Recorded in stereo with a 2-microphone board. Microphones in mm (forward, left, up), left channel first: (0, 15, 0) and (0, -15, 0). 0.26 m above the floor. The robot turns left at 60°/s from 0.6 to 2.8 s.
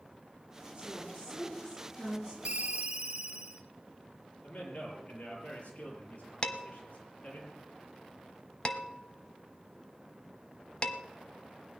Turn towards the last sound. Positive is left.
turn(degrees=35)  # may be behind; listen again after turning